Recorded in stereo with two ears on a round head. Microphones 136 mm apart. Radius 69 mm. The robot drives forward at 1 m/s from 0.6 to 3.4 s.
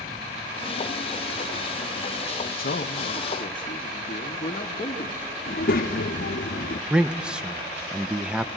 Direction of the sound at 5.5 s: 60° left (ahead or behind).